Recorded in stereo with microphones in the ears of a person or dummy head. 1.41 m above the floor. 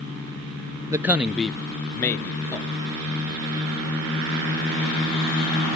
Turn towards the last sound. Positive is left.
turn(degrees=20)  # may be behind; listen again after turning